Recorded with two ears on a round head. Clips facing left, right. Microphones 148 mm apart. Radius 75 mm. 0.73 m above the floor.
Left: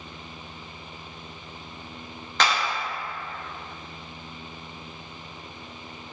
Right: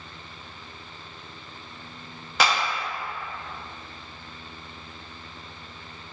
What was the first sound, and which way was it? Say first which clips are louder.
A clap: right 1 dB; 10° right (ahead or behind).